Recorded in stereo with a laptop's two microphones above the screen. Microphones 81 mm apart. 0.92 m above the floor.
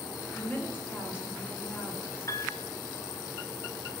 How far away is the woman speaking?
About 1.9 m.